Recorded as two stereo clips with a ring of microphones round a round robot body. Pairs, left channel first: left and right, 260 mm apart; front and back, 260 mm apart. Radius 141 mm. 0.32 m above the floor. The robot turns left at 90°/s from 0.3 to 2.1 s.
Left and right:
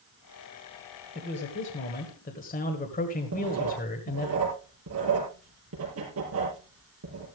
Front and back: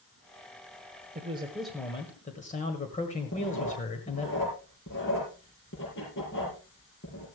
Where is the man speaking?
135° left, 1.6 m; by 4.3 s 50° left, 1.6 m.